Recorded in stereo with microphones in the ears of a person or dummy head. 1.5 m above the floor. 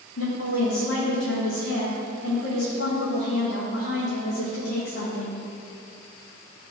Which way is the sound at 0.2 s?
80° left.